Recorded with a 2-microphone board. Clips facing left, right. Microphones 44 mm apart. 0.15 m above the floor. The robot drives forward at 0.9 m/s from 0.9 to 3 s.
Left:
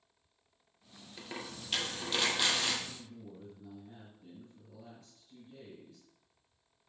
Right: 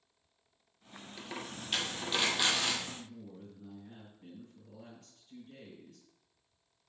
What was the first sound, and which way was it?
A dropped coin, centre (ahead or behind).